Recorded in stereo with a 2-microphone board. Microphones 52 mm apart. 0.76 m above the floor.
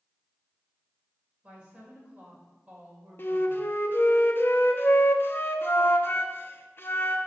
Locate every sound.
1.4 s a woman speaking: 25° right (ahead or behind), 3.5 m
3.2 s a flute: 45° left (ahead or behind), 0.7 m